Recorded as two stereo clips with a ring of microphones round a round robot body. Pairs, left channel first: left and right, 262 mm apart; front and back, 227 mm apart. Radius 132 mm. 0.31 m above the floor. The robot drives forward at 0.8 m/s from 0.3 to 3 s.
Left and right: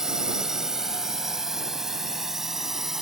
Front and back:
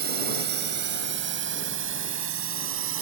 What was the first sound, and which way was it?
A drone, 175° right.